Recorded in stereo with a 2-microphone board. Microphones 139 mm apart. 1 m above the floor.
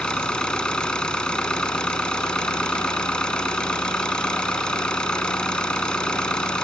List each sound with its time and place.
0.0 s an engine running: 5° left (ahead or behind)